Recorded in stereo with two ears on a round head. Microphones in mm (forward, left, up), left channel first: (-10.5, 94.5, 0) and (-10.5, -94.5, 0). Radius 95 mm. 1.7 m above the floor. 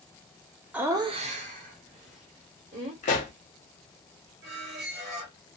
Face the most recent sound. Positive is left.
turn(degrees=-40)  # may be behind; listen again after turning